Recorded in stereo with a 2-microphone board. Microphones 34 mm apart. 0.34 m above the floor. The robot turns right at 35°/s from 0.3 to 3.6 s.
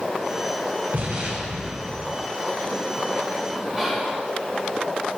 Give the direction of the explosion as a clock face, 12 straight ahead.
2 o'clock.